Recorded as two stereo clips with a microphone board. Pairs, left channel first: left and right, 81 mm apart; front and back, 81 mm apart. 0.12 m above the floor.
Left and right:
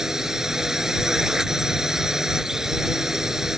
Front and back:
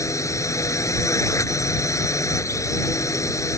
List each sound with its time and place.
0.0 s a drone: 10° right